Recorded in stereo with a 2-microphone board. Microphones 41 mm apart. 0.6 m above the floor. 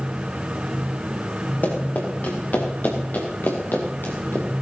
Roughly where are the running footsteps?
Left.